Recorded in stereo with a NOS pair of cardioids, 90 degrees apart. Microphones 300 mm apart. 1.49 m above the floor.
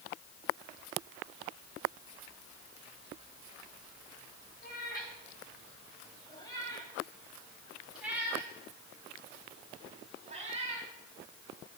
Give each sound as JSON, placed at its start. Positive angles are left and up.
{"t": 4.6, "sound": "a cat meowing", "azimuth_deg": 35, "distance_m": 4.0}